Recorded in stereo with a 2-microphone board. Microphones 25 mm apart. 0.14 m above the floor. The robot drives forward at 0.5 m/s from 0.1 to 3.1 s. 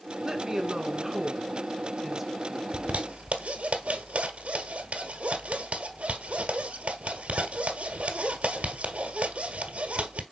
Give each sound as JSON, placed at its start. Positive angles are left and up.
{"t": 0.2, "sound": "a woman speaking", "side_deg": -20, "distance_m": 1.6}
{"t": 2.7, "sound": "a zipper", "side_deg": -65, "distance_m": 1.7}